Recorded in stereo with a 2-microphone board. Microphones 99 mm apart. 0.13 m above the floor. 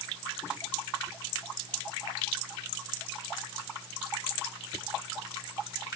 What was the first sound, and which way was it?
Only background noise.